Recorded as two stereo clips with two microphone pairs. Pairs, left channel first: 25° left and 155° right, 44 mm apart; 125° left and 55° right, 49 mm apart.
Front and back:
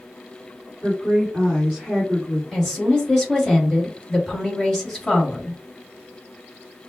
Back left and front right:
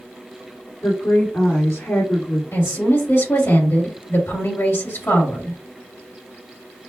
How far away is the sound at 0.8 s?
About 2.5 m.